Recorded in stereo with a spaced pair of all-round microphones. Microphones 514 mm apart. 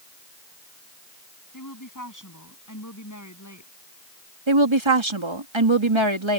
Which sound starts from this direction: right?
A woman speaking, at 4.5 s.